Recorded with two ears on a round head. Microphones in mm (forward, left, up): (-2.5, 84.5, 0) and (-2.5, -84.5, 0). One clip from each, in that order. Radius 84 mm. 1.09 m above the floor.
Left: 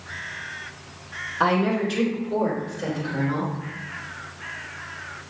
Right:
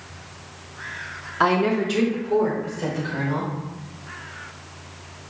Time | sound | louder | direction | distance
1.4 | a woman speaking | right 2 dB | 25° right (ahead or behind) | 1.9 m